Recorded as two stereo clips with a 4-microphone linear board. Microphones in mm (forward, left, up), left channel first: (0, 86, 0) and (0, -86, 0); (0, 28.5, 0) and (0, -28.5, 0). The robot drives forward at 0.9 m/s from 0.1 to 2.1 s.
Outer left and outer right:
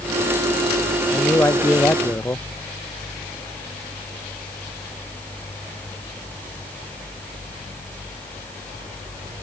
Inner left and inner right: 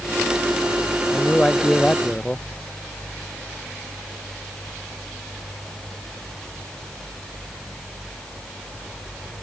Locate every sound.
1.1 s a man speaking: 15° left (ahead or behind)